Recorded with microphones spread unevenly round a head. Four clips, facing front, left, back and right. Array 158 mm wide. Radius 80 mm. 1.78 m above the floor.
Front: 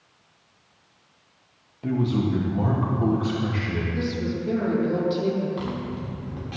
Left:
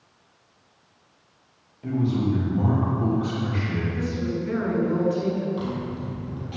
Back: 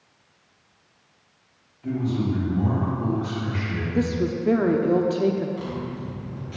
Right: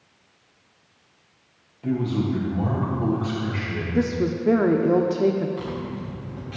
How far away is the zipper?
About 1.7 m.